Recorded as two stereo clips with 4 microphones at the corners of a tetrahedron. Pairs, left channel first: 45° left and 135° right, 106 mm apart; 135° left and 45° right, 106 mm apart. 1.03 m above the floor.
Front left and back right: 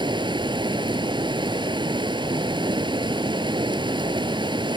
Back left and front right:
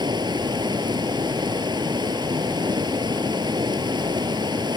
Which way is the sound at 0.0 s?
90° right.